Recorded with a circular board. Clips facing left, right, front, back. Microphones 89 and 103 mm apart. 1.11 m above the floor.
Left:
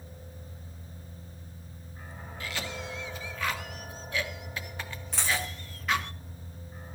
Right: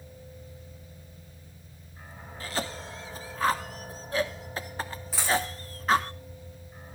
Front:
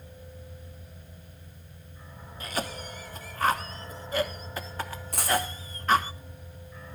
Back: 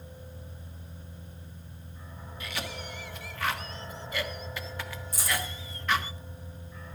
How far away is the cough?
About 1.1 m.